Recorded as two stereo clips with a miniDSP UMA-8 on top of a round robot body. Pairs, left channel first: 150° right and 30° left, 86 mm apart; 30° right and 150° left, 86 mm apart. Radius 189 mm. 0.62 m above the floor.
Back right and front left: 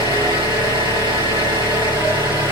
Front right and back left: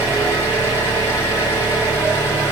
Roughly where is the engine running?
Ahead left.